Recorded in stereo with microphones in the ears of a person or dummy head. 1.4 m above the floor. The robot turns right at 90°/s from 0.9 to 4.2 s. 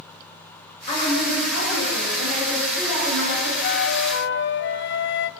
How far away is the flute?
About 0.8 m.